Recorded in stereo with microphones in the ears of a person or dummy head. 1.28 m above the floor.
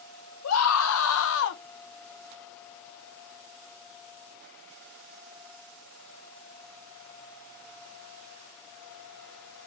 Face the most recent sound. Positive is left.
turn(degrees=55)  # may be behind; listen again after turning